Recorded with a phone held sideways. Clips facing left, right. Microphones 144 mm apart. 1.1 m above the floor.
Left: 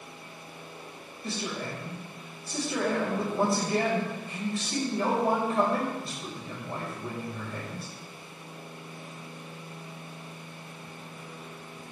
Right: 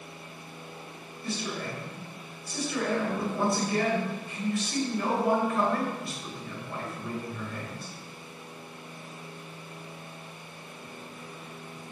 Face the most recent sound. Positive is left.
turn(degrees=35)  # may be behind; listen again after turning